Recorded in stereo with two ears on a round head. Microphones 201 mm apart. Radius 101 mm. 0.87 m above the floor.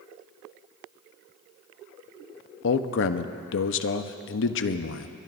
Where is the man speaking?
60° left (ahead or behind), 0.8 m.